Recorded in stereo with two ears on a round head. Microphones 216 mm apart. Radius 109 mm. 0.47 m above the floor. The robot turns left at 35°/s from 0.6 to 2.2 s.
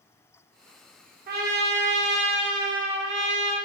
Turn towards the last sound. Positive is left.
turn(degrees=-85)